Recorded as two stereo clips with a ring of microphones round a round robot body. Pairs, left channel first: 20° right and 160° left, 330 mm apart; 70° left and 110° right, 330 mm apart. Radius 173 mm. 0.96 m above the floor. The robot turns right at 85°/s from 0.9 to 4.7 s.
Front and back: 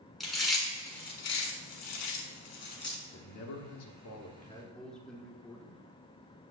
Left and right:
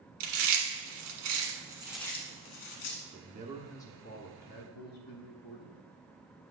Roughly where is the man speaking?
Right.